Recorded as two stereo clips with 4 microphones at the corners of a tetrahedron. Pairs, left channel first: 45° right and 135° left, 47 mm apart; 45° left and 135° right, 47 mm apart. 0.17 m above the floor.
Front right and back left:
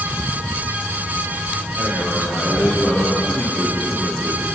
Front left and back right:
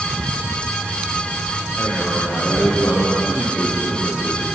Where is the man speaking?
10° right, 8.5 m.